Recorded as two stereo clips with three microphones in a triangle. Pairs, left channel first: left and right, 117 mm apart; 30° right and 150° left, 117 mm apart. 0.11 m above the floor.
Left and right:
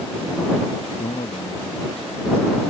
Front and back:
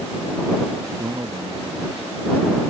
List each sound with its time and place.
0.9 s a man speaking: 85° left; by 2.6 s 125° left